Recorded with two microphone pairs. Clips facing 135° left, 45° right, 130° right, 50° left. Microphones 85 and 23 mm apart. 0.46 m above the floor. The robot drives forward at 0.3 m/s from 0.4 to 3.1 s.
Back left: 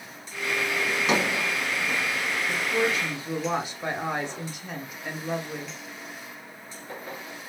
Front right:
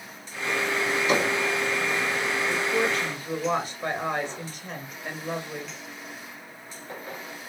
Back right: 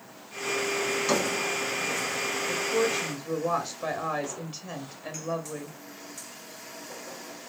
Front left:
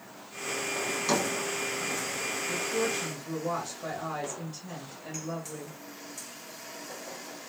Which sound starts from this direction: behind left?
A drawer, at 0.9 s.